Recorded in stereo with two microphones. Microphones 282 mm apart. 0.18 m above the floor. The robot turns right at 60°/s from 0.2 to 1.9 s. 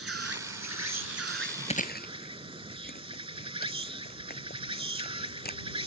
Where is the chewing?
20° left (ahead or behind); by 5.6 s 35° left (ahead or behind).